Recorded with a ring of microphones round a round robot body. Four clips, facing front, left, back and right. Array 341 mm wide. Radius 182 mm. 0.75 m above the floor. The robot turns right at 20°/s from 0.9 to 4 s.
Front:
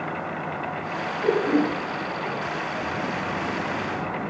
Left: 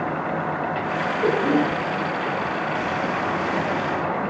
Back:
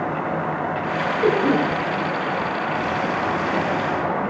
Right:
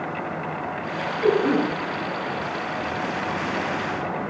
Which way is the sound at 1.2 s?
160° left.